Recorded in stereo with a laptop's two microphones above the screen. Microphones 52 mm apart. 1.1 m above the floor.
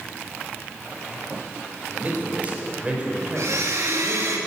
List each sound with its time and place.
1.9 s a man speaking: 35° right (ahead or behind), 4 m; by 4.4 s 10° right (ahead or behind), 4.5 m
3.4 s a blender: 75° right (ahead or behind), 2 m